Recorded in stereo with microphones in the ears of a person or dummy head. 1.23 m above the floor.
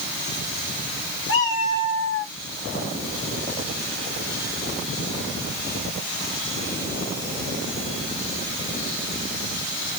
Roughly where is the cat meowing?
Left.